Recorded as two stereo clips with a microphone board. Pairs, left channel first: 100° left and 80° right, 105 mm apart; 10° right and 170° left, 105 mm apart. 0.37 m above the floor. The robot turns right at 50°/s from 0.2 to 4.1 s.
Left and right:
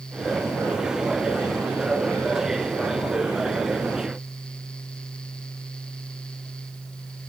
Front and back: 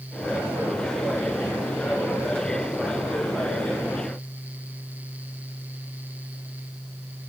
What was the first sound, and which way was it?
Only background noise.